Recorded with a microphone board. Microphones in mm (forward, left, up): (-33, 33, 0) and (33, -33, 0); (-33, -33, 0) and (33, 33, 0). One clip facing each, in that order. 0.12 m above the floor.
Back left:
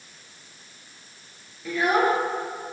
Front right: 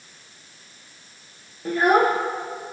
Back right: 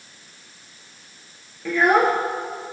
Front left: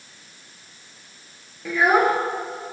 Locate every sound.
1.6 s a child speaking: 35° right, 1.5 m